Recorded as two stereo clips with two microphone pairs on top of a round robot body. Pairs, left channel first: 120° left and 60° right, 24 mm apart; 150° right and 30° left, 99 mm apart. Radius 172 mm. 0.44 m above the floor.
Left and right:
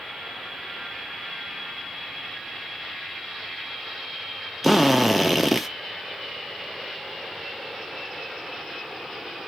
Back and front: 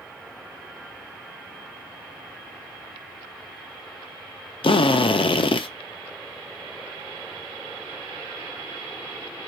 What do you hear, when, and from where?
4.6 s a drill: 135° right, 0.7 m